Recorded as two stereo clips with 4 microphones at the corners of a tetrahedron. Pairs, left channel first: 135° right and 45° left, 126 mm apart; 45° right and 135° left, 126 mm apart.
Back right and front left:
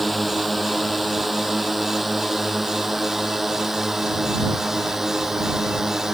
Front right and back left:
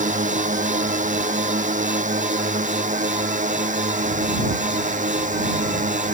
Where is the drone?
135° left; by 6.2 s 130° left.